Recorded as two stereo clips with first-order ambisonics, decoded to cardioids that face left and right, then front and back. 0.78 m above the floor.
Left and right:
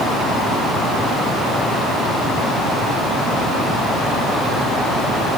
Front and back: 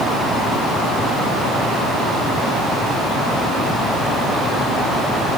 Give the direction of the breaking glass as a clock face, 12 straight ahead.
No breaking glass in this recording.